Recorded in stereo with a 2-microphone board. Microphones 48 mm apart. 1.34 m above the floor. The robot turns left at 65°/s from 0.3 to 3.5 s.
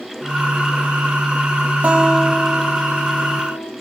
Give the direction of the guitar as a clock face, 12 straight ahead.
5 o'clock.